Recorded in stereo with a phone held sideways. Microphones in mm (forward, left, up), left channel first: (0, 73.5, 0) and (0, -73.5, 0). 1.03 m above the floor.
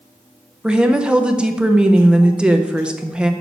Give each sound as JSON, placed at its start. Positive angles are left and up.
{"t": 0.6, "sound": "a woman speaking", "side_deg": -5, "distance_m": 0.6}